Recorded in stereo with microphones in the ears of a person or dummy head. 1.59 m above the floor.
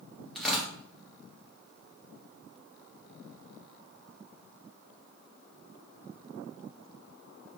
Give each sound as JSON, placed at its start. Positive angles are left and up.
{"t": 0.3, "sound": "tearing paper", "side_deg": 0, "distance_m": 1.1}